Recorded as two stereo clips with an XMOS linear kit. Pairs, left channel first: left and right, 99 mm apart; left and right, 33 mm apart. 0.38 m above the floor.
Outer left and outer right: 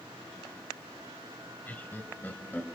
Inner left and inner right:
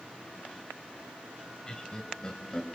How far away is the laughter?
About 2 m.